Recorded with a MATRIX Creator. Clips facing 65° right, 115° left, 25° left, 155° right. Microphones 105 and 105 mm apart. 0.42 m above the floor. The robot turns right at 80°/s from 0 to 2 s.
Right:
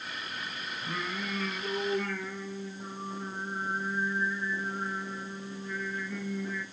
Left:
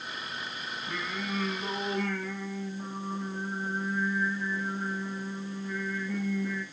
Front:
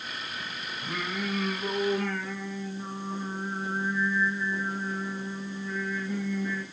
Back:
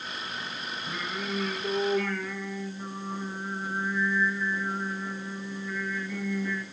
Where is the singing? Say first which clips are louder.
Even, front 3 dB; 10° right, 4 m; by 6.6 s 85° left, 4 m.